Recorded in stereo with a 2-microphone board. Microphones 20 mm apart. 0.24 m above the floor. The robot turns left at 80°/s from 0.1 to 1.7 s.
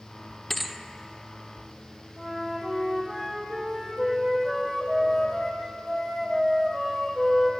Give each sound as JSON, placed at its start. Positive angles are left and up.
{"t": 0.5, "sound": "a thud", "side_deg": 5, "distance_m": 0.8}
{"t": 2.2, "sound": "a flute", "side_deg": 0, "distance_m": 2.5}